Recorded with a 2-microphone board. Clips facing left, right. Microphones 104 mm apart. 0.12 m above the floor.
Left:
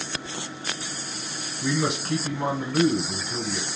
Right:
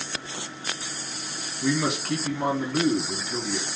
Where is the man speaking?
Centre (ahead or behind), 1.5 m.